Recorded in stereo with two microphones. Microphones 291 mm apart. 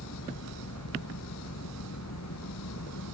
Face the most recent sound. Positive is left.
turn(degrees=75)  # may be behind; listen again after turning